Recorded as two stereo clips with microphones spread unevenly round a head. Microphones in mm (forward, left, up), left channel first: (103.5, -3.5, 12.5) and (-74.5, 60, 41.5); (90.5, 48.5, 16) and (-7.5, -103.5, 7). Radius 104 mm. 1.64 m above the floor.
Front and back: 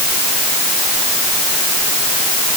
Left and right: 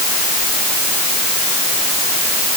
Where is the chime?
No chime in this recording.